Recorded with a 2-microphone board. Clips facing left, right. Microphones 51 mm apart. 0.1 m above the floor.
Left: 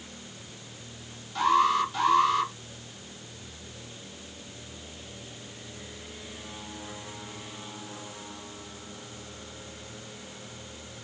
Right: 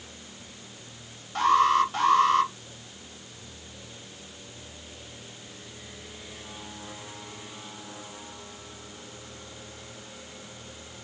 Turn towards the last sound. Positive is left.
turn(degrees=-45)  # may be behind; listen again after turning